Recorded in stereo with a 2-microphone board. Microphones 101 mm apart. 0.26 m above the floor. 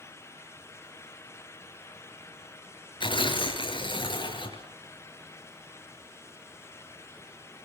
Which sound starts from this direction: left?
Tearing paper, at 3.0 s.